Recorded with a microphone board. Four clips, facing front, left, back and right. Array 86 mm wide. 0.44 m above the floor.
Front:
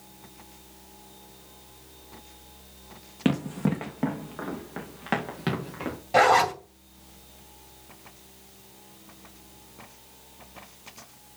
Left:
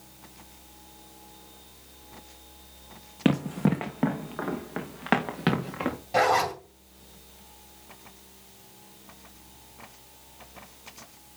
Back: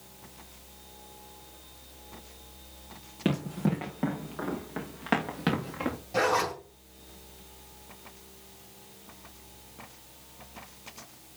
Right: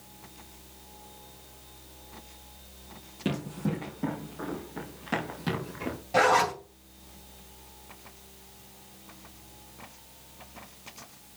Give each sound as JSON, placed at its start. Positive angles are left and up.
{"t": 3.2, "sound": "running footsteps", "azimuth_deg": 65, "distance_m": 2.5}
{"t": 6.1, "sound": "a zipper", "azimuth_deg": 10, "distance_m": 2.0}